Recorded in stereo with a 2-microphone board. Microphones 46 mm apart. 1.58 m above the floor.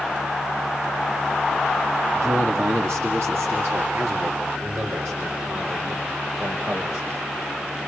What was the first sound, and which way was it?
A man speaking, 70° right (ahead or behind).